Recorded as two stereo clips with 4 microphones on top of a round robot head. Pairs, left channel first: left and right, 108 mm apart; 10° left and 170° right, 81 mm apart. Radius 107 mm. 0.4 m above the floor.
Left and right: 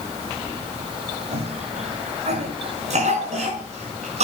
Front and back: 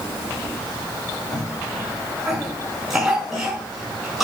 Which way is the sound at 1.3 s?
85° right.